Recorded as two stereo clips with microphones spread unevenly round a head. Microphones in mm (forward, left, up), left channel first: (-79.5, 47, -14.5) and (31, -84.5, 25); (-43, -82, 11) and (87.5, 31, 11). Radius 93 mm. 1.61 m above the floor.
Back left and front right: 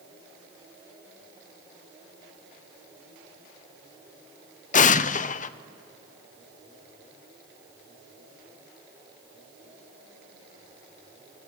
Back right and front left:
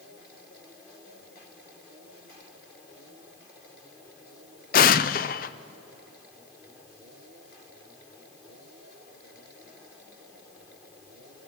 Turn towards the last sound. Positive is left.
turn(degrees=175)